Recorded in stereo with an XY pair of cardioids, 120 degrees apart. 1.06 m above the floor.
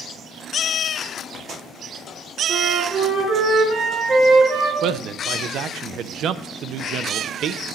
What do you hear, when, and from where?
2.5 s a flute: 50° right, 4 m
4.8 s a man speaking: 65° right, 0.6 m